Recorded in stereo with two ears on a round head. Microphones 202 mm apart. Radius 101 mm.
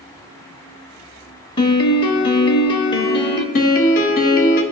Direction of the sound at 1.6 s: 20° left (ahead or behind).